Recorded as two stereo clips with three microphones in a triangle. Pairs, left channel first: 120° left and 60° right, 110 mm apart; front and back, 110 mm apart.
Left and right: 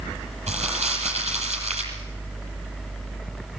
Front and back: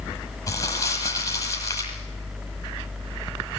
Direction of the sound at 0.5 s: 60° right.